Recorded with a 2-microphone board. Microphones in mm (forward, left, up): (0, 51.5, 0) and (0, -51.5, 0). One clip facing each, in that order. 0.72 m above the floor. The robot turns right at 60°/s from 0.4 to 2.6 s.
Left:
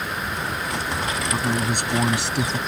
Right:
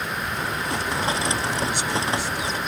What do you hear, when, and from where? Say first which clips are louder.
1.3 s a man speaking: left 2 dB; 30° left; by 2.6 s 105° left